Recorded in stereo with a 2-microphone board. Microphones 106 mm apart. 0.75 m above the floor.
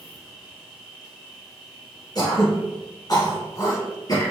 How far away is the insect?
About 1.7 m.